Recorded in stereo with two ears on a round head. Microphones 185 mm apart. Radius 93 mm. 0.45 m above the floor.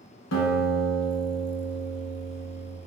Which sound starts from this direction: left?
A guitar, at 0.3 s.